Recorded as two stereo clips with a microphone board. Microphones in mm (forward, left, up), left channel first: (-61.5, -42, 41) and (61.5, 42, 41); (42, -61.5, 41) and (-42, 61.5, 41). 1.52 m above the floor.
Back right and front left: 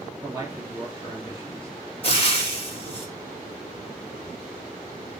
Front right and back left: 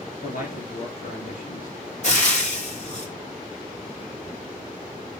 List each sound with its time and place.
0.2 s a man speaking: 35° right, 3.5 m
2.0 s frying: 95° right, 3 m